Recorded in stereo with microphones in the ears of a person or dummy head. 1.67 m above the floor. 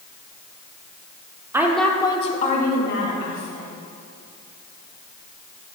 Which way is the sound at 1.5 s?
15° right (ahead or behind).